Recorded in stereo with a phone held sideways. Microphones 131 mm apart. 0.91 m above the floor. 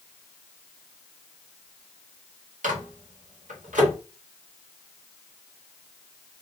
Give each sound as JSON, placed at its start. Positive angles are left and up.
{"t": 2.6, "sound": "a microwave", "side_deg": -80, "distance_m": 1.4}